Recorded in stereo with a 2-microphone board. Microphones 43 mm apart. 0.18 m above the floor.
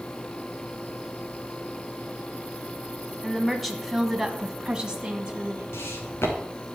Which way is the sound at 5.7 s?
65° left (ahead or behind).